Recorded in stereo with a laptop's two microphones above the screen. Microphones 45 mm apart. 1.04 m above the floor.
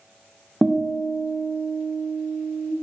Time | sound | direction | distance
0.6 | a guitar | 5° right (ahead or behind) | 0.5 m